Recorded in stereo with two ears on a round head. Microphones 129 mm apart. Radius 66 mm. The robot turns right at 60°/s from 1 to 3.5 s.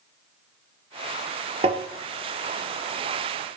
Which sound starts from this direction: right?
Tapping, at 1.6 s.